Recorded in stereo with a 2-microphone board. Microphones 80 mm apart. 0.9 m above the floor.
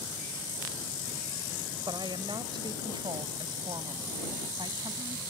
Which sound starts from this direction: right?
A woman speaking, at 1.9 s.